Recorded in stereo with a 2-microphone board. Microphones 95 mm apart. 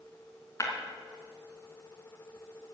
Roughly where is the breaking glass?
Left.